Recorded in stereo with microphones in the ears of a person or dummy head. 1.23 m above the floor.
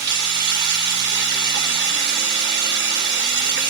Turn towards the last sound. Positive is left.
turn(degrees=-45)  # may be behind; listen again after turning